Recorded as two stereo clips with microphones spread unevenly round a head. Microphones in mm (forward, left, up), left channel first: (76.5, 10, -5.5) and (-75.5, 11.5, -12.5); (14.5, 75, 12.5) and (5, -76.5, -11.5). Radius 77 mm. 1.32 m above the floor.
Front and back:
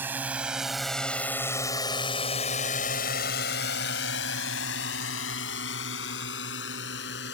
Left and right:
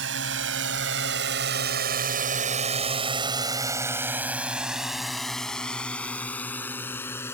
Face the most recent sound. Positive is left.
turn(degrees=10)